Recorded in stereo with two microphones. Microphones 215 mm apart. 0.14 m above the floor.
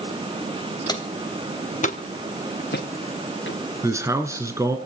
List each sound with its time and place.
0.9 s footsteps: 20° left (ahead or behind), 2.5 m; by 3.6 s 60° left (ahead or behind), 3 m
3.8 s a man speaking: 15° right (ahead or behind), 1.5 m